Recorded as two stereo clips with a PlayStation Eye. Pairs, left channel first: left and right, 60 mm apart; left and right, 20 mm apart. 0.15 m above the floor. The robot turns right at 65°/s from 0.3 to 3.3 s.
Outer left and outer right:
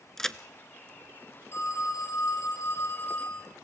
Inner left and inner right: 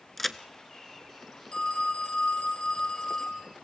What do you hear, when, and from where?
0.2 s a crack: 10° left (ahead or behind), 0.7 m
1.5 s a phone ringing: 45° left, 3 m; by 3.4 s 165° left, 3 m